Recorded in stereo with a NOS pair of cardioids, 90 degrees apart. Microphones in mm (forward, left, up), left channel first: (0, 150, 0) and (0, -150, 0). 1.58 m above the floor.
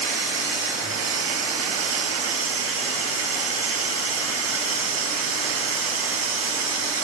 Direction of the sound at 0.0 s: 55° right.